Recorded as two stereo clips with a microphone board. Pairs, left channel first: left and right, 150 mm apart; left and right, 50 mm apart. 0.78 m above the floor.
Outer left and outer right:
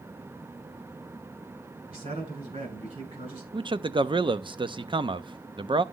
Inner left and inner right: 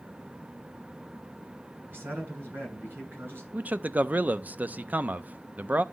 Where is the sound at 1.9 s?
40° right (ahead or behind), 8 m.